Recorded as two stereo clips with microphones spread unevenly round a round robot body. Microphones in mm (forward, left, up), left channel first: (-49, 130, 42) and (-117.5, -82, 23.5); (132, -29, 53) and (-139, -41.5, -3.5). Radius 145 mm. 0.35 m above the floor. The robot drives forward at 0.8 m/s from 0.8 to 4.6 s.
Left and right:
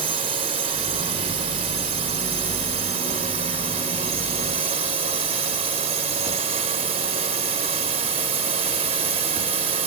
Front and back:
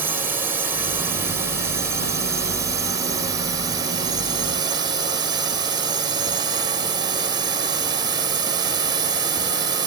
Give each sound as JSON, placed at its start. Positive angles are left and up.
{"t": 0.0, "sound": "a drone", "azimuth_deg": -125}